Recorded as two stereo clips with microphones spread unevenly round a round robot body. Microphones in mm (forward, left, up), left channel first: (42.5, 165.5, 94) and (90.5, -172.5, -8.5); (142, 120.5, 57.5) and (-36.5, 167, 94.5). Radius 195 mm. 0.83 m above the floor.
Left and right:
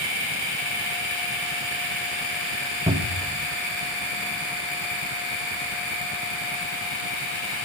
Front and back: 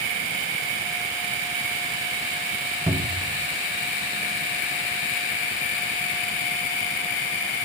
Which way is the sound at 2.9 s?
105° right.